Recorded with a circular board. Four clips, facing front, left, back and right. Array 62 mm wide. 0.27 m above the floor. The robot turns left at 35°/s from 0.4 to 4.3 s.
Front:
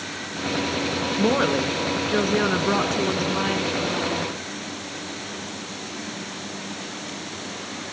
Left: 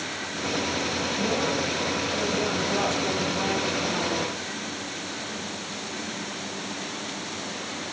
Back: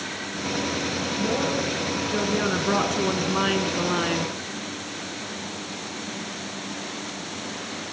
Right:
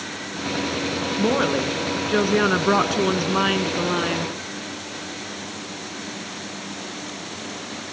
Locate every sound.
1.2 s a woman speaking: 30° right, 3 m; by 4.3 s 140° right, 3 m